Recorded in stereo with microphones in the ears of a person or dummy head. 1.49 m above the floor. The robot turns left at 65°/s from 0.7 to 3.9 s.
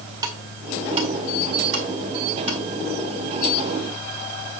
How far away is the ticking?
About 1.9 m.